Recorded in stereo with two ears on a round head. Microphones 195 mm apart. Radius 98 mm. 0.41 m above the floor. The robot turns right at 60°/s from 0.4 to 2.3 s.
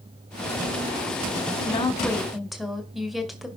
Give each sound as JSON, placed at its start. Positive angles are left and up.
{"t": 1.6, "sound": "a woman speaking", "azimuth_deg": 140, "distance_m": 2.0}